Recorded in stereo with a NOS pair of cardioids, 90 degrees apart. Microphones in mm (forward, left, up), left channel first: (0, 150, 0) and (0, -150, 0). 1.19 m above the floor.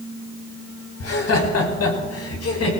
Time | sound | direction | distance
1.0 | laughter | 55° left | 5.5 m